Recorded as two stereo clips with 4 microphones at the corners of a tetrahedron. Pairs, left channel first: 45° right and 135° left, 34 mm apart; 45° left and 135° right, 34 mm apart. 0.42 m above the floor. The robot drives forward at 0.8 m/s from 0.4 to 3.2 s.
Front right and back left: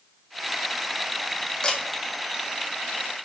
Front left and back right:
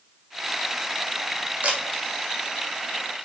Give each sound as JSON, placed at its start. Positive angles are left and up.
{"t": 1.6, "sound": "a camera shutter", "azimuth_deg": -105, "distance_m": 1.1}